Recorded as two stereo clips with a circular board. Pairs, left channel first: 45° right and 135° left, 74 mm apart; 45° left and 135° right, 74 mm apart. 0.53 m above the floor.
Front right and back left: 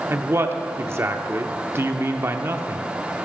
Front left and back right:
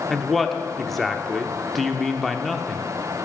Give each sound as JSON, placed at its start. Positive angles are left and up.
{"t": 0.1, "sound": "a man speaking", "azimuth_deg": 130, "distance_m": 0.8}